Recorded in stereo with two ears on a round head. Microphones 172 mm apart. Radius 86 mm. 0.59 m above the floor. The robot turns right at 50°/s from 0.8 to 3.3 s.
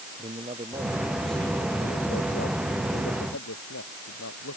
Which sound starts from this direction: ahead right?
A man speaking, at 0.2 s.